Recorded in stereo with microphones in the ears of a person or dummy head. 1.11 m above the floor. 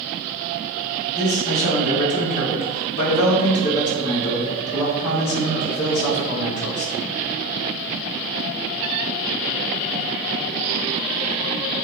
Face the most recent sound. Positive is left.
turn(degrees=45)  # may be behind; listen again after turning